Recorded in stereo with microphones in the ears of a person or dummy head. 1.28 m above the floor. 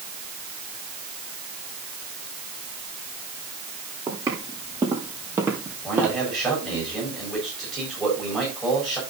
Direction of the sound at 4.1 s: 15° right (ahead or behind).